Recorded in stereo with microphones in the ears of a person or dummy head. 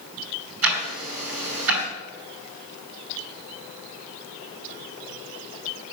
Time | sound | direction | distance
0.6 | ticking | 70° right (ahead or behind) | 4 m